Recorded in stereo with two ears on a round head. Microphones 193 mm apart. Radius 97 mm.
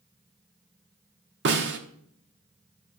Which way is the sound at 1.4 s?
55° right (ahead or behind).